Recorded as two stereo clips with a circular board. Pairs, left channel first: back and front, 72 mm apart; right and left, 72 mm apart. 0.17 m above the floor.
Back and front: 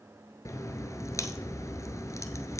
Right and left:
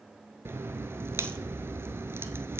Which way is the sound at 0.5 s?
145° left.